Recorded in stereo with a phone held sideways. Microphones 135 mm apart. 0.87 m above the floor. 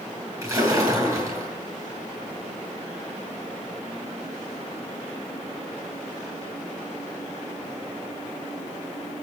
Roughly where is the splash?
Right.